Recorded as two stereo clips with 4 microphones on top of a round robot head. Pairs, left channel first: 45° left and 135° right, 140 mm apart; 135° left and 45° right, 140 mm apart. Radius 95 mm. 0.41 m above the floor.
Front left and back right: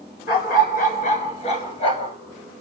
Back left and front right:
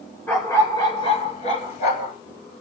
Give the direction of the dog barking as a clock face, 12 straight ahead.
10 o'clock.